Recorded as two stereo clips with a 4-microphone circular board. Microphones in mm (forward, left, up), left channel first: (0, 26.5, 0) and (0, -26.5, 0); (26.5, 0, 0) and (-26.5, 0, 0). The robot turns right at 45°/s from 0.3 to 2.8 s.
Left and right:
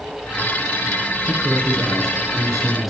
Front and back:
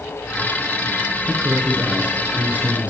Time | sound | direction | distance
1.3 | a man speaking | 125° left | 1.4 m